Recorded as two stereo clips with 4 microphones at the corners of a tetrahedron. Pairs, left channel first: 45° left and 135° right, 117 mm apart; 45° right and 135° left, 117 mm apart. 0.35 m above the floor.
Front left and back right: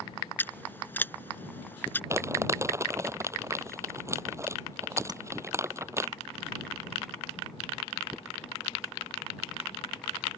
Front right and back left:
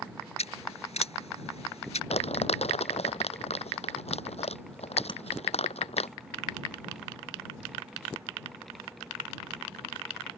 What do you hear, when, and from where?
0.4 s scissors: 25° right
2.1 s crumpling: 70° right
5.1 s tapping: 85° right